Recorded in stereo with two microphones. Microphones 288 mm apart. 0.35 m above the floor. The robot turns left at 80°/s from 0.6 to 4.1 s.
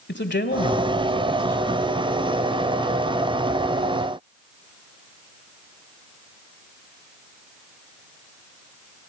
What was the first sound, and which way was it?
A man speaking, 60° left.